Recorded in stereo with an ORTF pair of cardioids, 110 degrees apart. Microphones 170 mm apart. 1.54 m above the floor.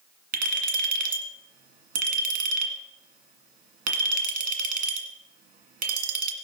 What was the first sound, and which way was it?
A clink, 60° right.